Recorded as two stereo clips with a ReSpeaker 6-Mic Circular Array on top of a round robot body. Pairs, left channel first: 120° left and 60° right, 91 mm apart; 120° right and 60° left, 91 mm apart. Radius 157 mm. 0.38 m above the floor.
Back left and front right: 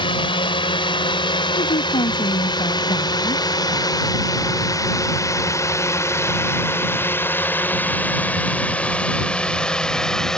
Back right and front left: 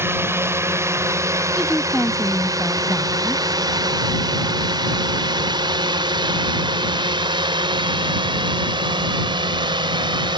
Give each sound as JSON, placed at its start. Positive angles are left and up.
{"t": 0.0, "sound": "a drone", "azimuth_deg": 120}
{"t": 1.6, "sound": "a woman speaking", "azimuth_deg": 150}